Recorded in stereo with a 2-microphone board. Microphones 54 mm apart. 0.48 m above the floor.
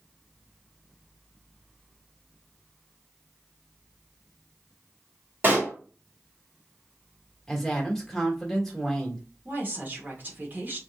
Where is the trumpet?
No trumpet in this recording.